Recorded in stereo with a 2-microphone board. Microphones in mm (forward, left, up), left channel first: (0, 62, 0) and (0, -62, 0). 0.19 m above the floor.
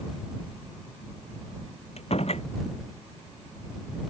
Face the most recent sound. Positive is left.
turn(degrees=60)  # may be behind; listen again after turning